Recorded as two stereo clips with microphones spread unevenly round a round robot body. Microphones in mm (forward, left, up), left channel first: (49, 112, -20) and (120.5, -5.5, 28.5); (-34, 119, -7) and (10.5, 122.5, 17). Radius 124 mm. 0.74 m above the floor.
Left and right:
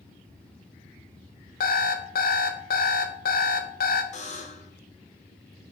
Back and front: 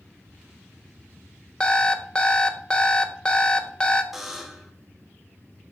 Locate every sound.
1.6 s an alarm clock: 110° left, 0.5 m
4.1 s a buzzer: 95° left, 0.7 m